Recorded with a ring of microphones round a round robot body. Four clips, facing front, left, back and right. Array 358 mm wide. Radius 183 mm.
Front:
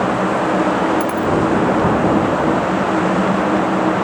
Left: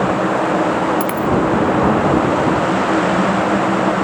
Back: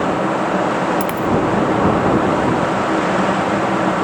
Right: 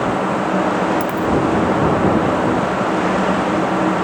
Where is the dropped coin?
130° left.